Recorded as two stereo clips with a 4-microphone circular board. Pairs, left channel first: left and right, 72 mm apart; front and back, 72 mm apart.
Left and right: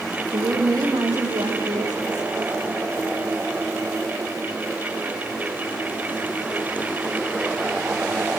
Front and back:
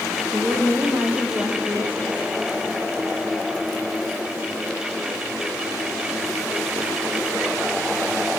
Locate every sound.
0.3 s a woman speaking: 110° right, 6 m